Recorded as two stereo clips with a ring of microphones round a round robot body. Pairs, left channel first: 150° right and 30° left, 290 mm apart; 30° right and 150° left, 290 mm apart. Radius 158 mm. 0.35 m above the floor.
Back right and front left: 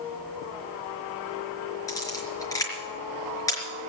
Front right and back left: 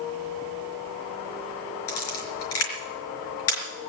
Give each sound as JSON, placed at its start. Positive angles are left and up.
{"t": 1.9, "sound": "a camera shutter", "azimuth_deg": -70, "distance_m": 4.5}